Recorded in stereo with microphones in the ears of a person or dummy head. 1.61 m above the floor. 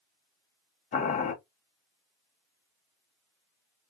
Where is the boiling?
45° left (ahead or behind), 1.0 m.